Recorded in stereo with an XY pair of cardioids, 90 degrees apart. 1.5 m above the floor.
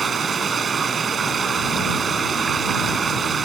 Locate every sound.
0.0 s running water: 55° right